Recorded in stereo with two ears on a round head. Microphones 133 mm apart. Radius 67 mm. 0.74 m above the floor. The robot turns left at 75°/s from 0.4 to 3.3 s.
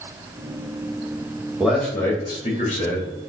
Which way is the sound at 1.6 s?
170° right.